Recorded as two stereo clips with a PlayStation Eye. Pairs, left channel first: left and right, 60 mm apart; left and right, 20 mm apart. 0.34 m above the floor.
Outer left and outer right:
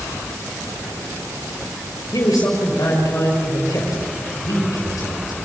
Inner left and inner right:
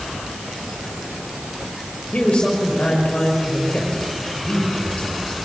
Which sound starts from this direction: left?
A man speaking, at 2.1 s.